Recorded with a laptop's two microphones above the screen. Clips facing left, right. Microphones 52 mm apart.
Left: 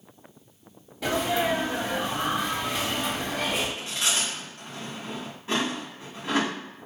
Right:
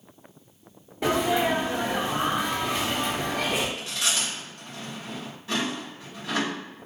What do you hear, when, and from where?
1.0 s a sneeze: 25° right (ahead or behind), 0.6 m
3.8 s chewing: 25° left (ahead or behind), 1.4 m